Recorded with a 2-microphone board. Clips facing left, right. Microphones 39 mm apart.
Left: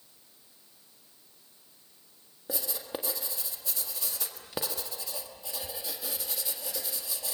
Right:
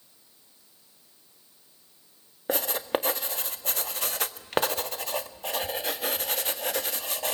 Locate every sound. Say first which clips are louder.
2.5 s writing: right 9 dB; 55° right (ahead or behind), 1.6 m